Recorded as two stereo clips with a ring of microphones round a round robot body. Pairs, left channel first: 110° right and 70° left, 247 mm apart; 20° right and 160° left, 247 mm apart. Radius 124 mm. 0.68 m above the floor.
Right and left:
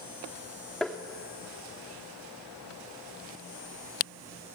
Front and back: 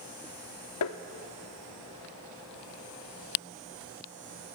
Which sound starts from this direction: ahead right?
Tapping, at 0.8 s.